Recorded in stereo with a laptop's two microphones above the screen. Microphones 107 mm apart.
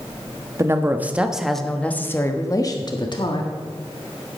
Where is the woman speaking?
25° right (ahead or behind), 1.3 m; by 3.5 s 50° left (ahead or behind), 1.7 m.